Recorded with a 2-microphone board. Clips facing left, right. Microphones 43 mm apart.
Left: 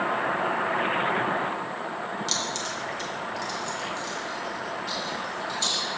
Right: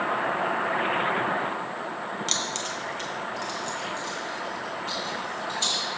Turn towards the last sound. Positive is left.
turn(degrees=-40)  # may be behind; listen again after turning